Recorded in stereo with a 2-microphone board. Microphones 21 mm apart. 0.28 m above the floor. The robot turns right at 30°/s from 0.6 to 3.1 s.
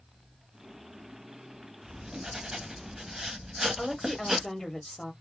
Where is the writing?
70° right, 1.2 m; by 4.5 s 30° right, 1.2 m.